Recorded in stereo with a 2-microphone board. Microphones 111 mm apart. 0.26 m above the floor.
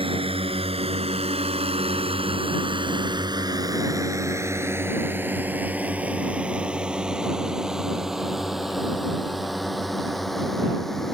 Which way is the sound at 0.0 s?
55° right (ahead or behind).